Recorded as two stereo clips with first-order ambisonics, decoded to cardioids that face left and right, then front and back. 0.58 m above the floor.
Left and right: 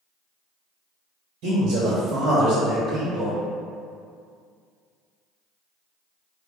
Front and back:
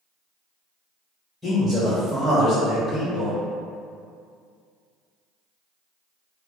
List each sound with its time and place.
1.4 s a man speaking: 95° right, 1.4 m; by 3.4 s 40° right, 0.8 m